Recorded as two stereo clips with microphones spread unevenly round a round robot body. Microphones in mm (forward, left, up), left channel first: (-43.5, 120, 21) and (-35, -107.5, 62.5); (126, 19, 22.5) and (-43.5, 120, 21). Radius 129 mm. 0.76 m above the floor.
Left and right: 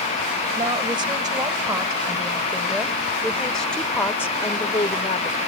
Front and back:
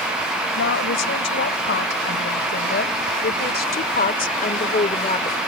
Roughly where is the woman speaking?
Ahead.